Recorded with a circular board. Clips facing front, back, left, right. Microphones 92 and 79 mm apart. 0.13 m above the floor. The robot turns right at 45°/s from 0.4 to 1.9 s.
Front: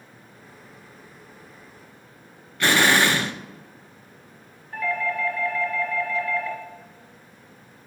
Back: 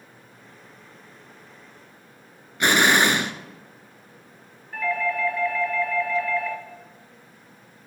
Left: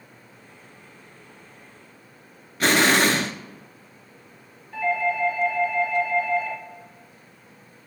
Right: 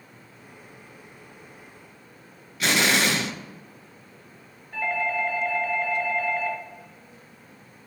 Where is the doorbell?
105° right, 2.5 m.